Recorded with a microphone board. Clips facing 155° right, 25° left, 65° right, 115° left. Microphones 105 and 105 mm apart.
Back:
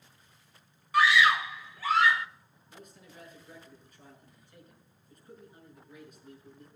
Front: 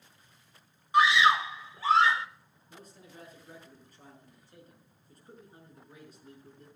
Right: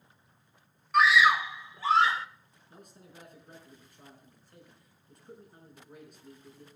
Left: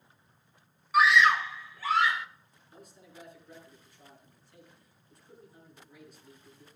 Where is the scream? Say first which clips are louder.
Front 1 dB, even; 30° left, 0.9 m; by 2.3 s 30° right, 1.2 m.